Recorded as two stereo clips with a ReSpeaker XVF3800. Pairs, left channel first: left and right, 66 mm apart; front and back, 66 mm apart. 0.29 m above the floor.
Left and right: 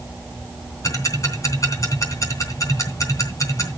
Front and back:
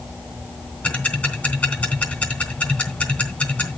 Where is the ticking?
65° left, 3 m.